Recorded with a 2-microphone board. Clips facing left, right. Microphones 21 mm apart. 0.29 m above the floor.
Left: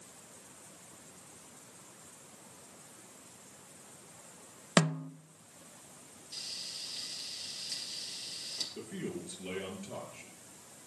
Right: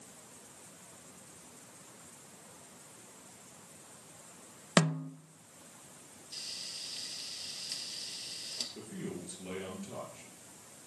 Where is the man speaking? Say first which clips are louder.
Left 2 dB; 15° left (ahead or behind), 6 m.